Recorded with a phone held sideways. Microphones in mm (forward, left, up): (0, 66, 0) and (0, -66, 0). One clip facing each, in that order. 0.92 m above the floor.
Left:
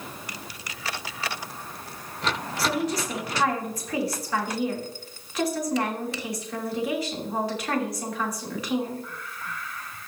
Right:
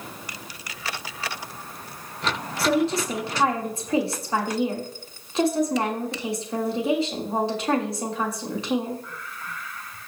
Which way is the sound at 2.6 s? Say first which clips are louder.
Right 5 dB; 25° right (ahead or behind).